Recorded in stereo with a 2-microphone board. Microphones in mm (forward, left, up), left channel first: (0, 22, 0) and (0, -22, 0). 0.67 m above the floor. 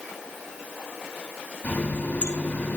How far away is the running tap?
About 3.5 m.